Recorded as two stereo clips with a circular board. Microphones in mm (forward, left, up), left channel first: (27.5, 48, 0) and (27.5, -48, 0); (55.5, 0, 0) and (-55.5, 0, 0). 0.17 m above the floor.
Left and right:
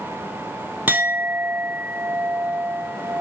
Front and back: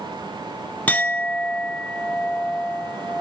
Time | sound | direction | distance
0.9 | a clink | 50° right | 0.6 m